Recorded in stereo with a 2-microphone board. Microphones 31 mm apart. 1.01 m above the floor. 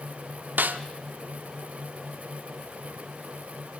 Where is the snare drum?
80° right, 1.2 m.